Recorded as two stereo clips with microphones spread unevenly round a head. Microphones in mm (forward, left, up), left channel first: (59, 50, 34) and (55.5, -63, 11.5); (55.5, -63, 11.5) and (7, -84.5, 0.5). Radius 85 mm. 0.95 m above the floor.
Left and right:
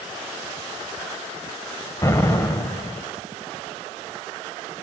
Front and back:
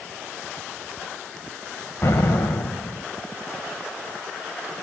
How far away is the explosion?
About 1.1 m.